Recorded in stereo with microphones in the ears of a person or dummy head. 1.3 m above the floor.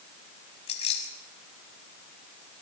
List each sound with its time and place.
0.7 s keys jangling: 30° left (ahead or behind), 5.5 m